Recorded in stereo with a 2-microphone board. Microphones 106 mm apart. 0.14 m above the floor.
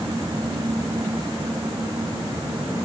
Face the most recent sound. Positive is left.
No sound to turn to.